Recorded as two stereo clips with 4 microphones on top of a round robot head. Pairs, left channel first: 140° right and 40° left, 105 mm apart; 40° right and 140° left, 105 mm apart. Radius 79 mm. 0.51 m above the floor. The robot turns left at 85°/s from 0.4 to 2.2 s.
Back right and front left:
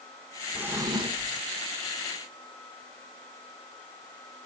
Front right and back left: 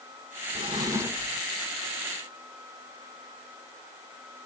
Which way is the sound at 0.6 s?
115° left.